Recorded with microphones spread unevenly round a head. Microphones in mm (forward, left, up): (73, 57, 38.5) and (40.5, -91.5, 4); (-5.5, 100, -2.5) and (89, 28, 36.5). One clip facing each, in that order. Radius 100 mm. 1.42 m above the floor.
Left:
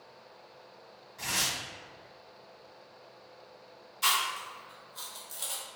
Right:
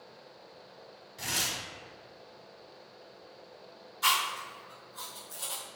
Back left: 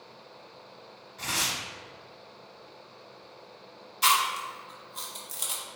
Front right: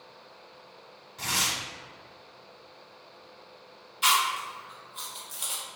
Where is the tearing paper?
40° right, 1.4 m.